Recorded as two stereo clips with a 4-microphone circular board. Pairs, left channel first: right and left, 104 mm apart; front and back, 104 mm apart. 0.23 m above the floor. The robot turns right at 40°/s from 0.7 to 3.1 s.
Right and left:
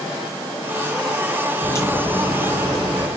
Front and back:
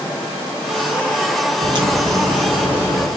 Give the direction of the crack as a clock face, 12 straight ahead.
5 o'clock.